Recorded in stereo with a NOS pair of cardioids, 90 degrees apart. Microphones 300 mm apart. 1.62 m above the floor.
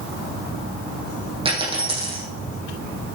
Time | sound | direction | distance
1.4 | a dropped coin | 20° right | 6.5 m